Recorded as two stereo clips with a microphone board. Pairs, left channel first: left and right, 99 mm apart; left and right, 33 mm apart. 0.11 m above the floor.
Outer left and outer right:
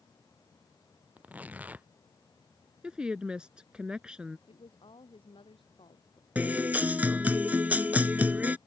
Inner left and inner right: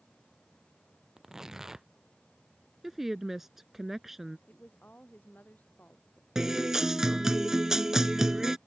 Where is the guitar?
15° right (ahead or behind).